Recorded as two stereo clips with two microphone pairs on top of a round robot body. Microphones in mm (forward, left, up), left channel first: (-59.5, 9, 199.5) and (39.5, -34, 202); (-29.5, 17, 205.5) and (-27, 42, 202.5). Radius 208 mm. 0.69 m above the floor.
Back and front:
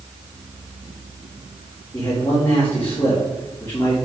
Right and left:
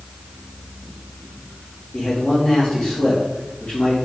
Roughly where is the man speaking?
Behind right.